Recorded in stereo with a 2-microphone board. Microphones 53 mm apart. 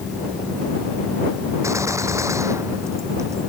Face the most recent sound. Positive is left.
turn(degrees=-75)  # may be behind; listen again after turning